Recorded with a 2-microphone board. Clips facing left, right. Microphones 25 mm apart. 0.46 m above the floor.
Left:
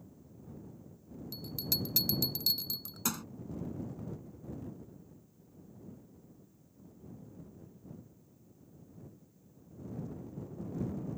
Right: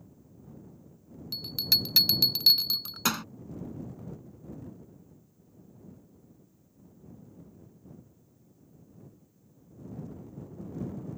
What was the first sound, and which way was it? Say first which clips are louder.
A bell: right 11 dB; 50° right (ahead or behind).